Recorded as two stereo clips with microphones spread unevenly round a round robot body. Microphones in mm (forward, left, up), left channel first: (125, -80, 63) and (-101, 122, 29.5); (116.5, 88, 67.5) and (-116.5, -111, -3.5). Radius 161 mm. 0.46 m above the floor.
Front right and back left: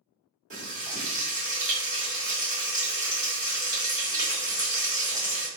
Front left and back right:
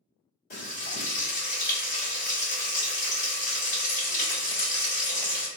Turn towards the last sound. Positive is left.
turn(degrees=95)